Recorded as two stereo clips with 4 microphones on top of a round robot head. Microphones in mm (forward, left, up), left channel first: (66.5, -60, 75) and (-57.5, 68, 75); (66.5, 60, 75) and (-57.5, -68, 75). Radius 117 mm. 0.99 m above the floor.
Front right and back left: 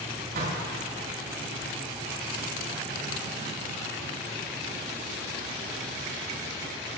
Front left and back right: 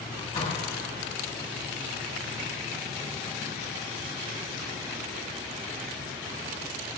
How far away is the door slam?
About 6 m.